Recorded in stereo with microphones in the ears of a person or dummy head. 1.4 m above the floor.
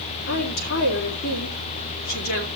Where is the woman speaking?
50° left (ahead or behind), 3.5 m.